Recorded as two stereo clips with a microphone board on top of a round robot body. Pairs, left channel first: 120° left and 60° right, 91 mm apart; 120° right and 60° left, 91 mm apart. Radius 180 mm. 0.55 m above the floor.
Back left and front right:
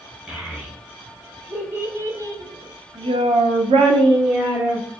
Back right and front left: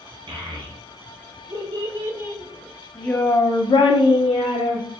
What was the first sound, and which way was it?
A child speaking, 20° left.